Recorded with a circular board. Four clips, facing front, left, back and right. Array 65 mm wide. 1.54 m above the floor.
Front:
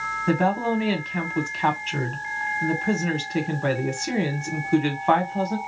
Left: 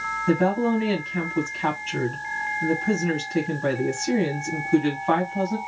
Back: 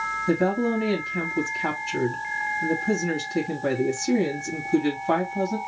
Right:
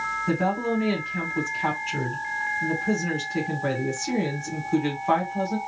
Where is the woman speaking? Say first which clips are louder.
Left 5 dB, front 1 dB; 5° left, 1.4 m.